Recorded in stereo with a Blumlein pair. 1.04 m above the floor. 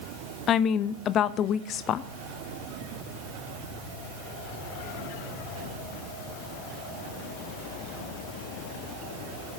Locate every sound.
0.5 s a woman speaking: 30° left, 0.6 m